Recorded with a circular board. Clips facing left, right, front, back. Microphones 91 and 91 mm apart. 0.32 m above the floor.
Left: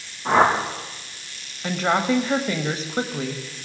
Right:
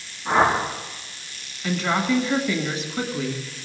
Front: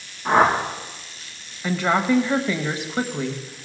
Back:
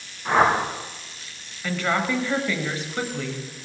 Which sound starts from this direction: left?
A whoosh, at 0.2 s.